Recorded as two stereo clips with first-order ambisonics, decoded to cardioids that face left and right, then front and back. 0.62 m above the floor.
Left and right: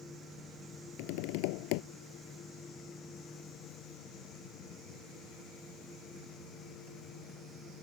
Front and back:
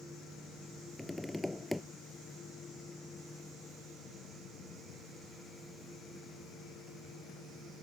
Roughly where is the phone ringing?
No phone ringing in this recording.